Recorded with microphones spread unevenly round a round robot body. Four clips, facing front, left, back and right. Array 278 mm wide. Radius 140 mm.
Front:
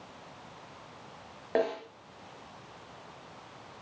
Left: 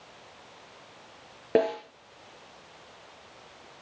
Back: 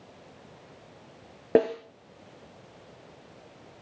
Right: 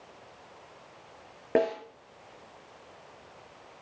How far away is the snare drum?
About 5 m.